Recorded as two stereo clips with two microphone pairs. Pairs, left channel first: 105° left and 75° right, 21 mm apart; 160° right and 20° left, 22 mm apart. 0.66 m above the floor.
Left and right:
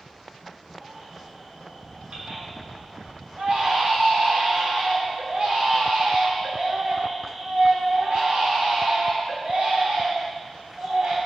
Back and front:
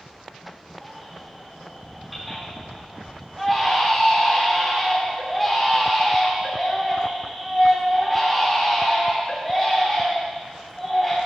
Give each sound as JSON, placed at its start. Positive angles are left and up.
{"t": 0.8, "sound": "a baby crying", "azimuth_deg": -70, "distance_m": 3.5}